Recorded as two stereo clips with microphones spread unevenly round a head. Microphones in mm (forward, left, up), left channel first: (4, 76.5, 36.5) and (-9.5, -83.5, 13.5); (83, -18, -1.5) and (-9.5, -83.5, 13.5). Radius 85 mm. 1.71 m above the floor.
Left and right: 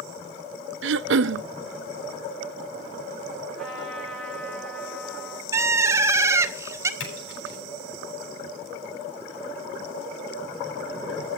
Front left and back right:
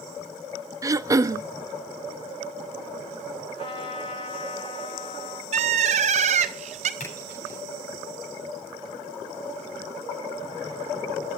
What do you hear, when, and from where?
0.8 s throat clearing: 80° right, 0.6 m
3.6 s a trumpet: straight ahead, 10 m
5.5 s a bird: 170° right, 1.0 m
7.0 s a splash: 90° left, 9.5 m